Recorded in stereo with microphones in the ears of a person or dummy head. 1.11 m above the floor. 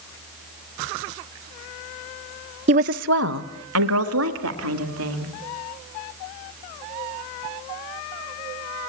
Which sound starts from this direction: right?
A woman speaking, at 2.7 s.